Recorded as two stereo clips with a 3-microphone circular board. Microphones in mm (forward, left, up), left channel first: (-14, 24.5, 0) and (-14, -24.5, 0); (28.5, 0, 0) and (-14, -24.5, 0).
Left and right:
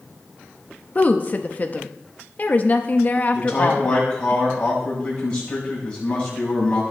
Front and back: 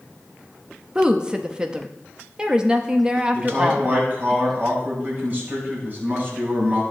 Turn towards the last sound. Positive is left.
turn(degrees=155)